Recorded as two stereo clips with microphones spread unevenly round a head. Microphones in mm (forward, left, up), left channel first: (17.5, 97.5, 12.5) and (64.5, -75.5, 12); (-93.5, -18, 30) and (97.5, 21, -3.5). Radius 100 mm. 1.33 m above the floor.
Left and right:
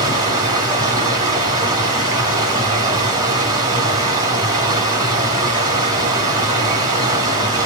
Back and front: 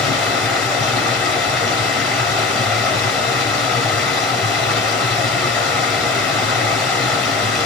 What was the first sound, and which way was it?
Running water, 105° right.